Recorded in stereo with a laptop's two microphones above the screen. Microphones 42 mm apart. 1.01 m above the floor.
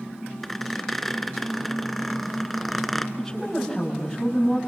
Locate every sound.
0.4 s a squeak: 5° left (ahead or behind), 1.8 m
3.2 s a woman speaking: 5° left (ahead or behind), 8 m